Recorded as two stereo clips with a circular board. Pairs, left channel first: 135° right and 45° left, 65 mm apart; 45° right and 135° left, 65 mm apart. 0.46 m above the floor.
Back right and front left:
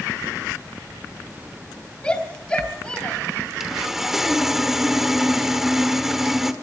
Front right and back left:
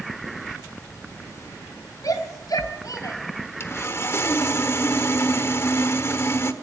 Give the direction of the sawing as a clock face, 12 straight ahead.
1 o'clock.